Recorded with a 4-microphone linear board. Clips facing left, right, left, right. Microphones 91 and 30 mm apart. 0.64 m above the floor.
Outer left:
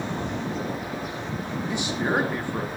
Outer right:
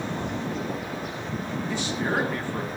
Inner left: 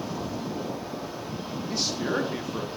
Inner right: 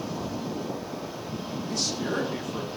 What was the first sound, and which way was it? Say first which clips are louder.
A man speaking: outer left 2 dB, inner left 1 dB; 15° left (ahead or behind).